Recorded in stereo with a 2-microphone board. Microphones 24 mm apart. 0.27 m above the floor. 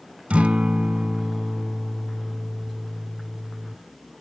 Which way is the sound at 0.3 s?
75° right (ahead or behind).